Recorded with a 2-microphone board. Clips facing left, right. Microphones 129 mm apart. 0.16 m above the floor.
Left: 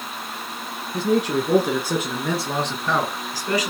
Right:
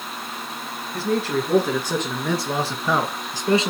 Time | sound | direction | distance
0.9 | a man speaking | 20° left (ahead or behind) | 2.5 m